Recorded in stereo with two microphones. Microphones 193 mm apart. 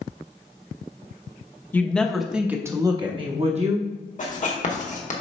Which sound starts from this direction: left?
Writing, at 4.2 s.